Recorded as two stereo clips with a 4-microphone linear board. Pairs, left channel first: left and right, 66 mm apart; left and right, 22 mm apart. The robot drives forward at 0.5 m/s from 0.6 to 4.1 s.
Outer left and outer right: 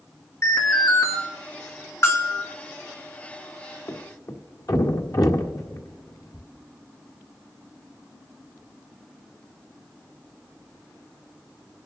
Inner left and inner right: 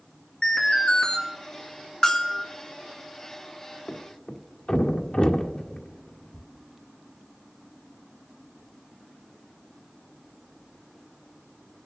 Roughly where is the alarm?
Left.